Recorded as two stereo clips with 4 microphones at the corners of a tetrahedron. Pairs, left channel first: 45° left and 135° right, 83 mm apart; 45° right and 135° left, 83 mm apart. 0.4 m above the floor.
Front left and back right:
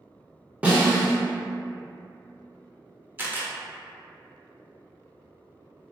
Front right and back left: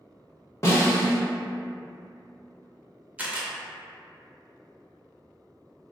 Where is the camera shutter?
170° right, 0.6 m.